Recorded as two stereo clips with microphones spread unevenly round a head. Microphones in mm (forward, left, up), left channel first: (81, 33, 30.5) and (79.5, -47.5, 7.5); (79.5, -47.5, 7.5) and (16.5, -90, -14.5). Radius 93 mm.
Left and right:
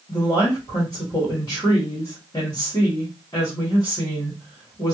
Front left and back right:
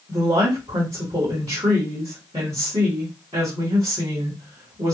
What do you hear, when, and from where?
0.1 s a woman speaking: 160° left, 1.6 m